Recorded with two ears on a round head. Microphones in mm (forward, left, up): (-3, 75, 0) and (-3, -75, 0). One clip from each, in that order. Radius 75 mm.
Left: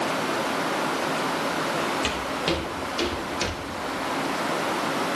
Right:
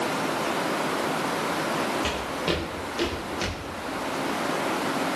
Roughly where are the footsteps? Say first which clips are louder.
Left 1 dB; left.